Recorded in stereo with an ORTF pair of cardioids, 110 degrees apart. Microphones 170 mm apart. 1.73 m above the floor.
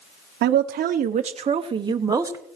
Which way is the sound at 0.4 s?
65° right.